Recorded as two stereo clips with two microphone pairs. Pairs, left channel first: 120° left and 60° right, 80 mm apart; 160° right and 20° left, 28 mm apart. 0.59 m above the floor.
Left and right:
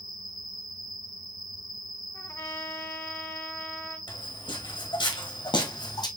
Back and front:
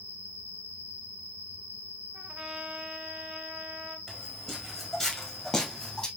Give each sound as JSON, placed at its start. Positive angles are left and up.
{"t": 0.0, "sound": "an insect", "azimuth_deg": 30, "distance_m": 2.0}
{"t": 2.1, "sound": "a trumpet", "azimuth_deg": 65, "distance_m": 1.2}
{"t": 4.1, "sound": "footsteps", "azimuth_deg": 110, "distance_m": 2.5}